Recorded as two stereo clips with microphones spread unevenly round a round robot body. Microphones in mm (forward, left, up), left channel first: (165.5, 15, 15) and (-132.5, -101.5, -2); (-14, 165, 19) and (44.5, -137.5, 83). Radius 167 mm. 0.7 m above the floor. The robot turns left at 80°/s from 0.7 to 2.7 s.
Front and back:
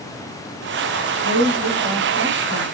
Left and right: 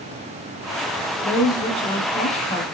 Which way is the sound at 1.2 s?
170° left.